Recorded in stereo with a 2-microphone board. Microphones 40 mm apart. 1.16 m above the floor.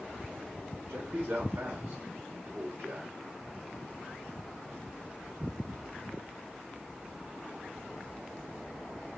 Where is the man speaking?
75° right (ahead or behind), 1.5 m.